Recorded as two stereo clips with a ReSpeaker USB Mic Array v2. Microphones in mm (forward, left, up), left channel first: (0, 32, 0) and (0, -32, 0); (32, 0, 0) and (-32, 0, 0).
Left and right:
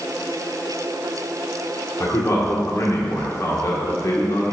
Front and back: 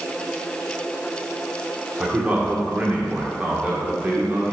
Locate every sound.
2.0 s a man speaking: 120° left, 1.7 m